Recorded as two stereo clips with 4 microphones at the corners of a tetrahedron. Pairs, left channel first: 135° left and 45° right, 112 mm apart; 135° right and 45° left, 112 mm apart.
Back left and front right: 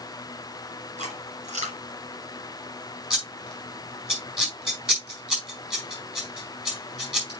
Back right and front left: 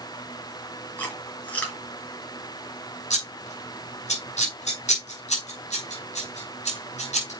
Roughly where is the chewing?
Ahead right.